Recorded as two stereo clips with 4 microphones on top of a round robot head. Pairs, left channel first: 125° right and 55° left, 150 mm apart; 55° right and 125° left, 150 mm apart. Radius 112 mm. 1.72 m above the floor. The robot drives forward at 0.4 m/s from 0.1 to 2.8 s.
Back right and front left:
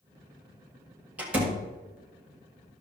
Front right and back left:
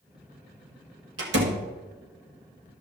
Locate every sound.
1.2 s a door slam: 135° left, 1.7 m; by 1.6 s 140° left, 1.8 m